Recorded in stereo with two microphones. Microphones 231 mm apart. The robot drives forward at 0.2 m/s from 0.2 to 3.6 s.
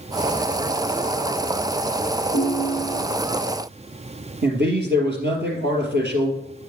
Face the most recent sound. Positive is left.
turn(degrees=-45)  # may be behind; listen again after turning